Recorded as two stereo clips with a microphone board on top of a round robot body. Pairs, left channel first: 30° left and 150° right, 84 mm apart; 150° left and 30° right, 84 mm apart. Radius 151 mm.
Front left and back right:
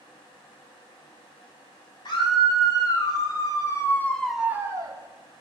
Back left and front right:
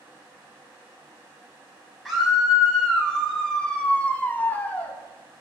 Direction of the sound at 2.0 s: 60° left.